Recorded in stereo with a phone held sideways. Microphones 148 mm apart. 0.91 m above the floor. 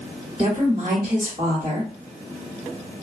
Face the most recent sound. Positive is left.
turn(degrees=-40)  # may be behind; listen again after turning